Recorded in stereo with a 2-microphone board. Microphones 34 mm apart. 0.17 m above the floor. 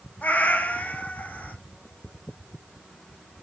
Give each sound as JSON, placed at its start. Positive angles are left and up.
{"t": 0.2, "sound": "a cat meowing", "side_deg": 65, "distance_m": 1.6}